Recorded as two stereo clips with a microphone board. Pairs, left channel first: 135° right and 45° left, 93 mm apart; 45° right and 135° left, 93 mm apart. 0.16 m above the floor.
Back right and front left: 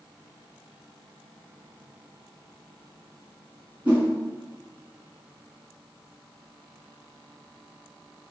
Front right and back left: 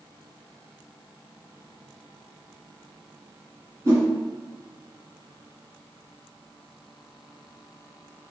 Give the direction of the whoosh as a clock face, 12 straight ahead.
8 o'clock.